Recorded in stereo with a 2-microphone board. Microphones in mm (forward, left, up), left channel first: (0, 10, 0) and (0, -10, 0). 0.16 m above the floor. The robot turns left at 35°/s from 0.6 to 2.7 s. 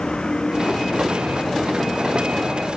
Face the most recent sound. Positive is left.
turn(degrees=60)